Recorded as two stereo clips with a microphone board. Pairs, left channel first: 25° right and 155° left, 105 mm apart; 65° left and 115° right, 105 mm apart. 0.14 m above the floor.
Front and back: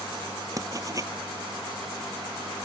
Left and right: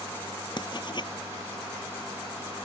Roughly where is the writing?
Left.